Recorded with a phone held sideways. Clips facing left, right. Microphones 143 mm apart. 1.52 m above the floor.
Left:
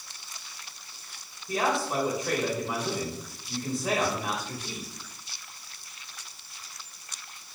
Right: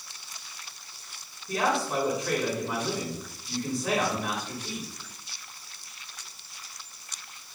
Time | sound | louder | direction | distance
1.5 | a man speaking | even | centre (ahead or behind) | 2.0 m